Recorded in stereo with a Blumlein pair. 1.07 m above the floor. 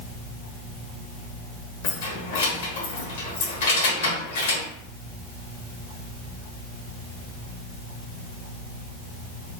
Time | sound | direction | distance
1.8 | keys jangling | 60° left | 0.8 m